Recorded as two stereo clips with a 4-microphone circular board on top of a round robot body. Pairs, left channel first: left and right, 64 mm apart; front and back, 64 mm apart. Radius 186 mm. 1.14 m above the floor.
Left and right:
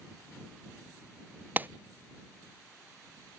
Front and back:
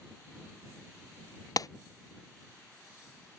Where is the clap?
25° right.